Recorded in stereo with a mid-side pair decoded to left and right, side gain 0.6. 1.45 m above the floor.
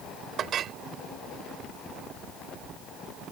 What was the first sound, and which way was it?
A clink, 50° right.